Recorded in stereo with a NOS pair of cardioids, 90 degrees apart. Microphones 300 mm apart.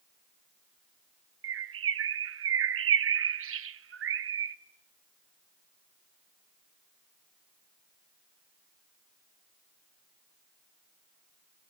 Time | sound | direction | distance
1.4 | a bird | 50° right | 1.1 m